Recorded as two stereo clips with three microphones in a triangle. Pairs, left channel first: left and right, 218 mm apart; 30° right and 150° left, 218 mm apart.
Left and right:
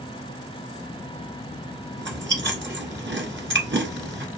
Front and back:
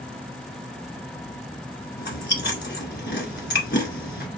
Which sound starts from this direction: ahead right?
Chewing, at 2.0 s.